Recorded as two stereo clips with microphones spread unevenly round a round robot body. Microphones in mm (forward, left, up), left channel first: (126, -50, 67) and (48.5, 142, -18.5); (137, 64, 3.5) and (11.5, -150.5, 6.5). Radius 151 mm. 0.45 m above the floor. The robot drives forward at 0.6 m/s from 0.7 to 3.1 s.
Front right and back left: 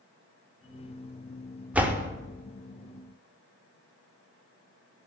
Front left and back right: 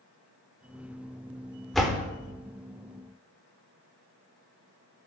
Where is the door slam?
145° left, 0.7 m; by 2.1 s 160° left, 0.8 m.